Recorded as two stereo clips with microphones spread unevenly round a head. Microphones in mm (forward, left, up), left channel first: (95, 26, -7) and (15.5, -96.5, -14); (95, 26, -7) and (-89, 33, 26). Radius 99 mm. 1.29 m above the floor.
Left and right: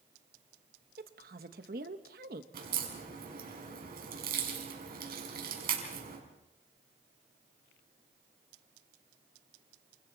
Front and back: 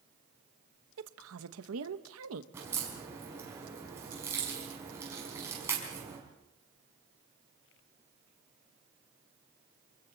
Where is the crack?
105° right, 5.5 m.